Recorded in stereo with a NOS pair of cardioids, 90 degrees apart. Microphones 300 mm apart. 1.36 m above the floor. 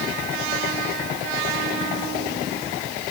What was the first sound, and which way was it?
Only background noise.